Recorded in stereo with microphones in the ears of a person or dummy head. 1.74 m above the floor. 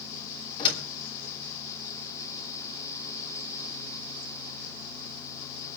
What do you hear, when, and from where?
0.6 s a door slam: 30° left (ahead or behind), 3.5 m